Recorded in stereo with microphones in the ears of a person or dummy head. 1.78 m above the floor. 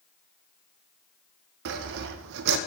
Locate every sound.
1.6 s sawing: 60° right (ahead or behind), 0.5 m